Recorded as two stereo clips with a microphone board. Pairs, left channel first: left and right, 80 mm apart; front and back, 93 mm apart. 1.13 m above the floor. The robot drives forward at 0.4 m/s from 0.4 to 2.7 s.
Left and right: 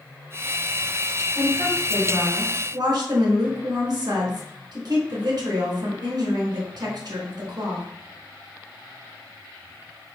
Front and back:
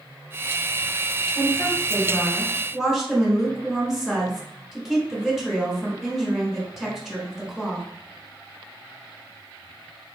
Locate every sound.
1.4 s a woman speaking: 60° right, 1.2 m; by 7.9 s 90° right, 1.1 m